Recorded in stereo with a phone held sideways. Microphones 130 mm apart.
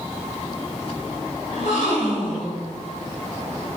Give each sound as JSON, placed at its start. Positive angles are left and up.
{"t": 1.5, "sound": "a gasp", "side_deg": 65, "distance_m": 1.5}